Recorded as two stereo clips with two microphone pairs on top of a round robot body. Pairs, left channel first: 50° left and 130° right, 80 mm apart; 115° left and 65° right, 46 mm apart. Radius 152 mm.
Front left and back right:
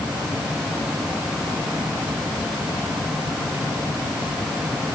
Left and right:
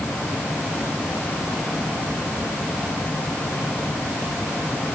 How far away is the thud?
No thud in this recording.